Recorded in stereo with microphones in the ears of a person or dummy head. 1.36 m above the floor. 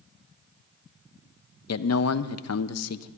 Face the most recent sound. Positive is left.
turn(degrees=75)  # may be behind; listen again after turning